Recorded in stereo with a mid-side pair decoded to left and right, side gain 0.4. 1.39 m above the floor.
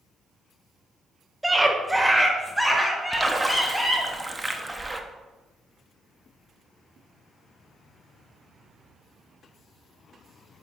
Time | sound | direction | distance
1.4 | a scream | 10° right | 1.5 m
3.1 | a splash | 15° right | 1.0 m